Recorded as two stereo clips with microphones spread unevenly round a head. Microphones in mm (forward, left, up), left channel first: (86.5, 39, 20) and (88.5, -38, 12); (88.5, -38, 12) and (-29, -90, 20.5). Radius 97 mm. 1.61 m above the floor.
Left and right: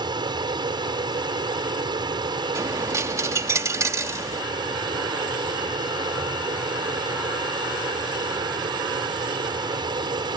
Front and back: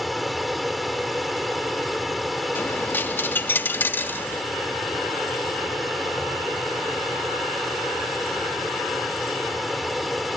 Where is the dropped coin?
50° right.